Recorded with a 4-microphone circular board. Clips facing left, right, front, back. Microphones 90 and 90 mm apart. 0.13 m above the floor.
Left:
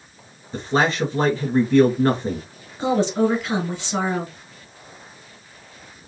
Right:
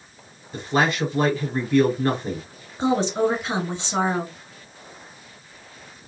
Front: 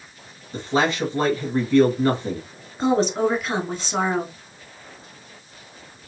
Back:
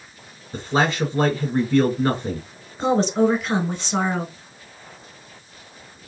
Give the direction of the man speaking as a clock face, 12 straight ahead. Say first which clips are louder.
Left 1 dB, even; 8 o'clock.